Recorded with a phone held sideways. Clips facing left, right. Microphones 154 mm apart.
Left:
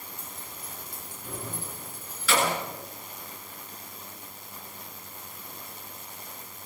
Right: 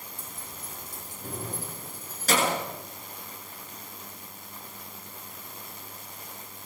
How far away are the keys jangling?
About 6.5 m.